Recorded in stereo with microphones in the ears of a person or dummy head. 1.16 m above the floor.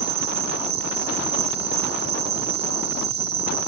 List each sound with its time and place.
0.0 s an insect: 30° right (ahead or behind), 0.8 m